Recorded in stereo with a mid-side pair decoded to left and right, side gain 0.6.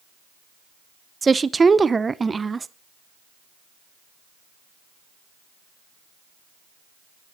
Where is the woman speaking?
20° right, 0.8 m.